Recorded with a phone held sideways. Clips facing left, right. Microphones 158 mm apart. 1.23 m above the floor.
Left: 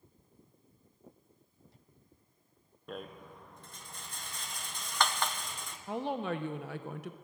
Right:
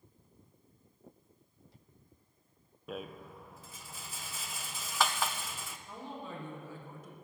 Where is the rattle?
5° right (ahead or behind), 0.6 m.